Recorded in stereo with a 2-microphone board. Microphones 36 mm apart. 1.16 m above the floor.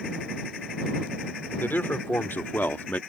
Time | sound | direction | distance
1.6 | a man speaking | 90° left | ?